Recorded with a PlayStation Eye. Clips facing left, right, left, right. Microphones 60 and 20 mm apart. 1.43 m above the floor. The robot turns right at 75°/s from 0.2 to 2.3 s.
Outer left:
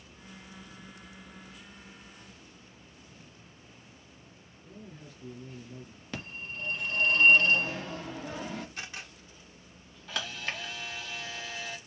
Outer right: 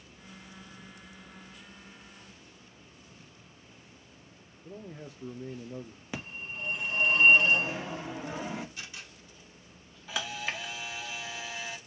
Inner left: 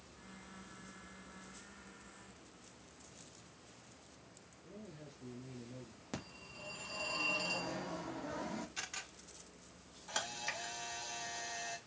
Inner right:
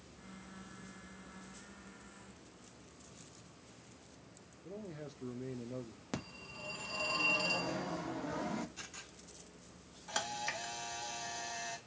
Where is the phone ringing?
15° right (ahead or behind), 1.2 m.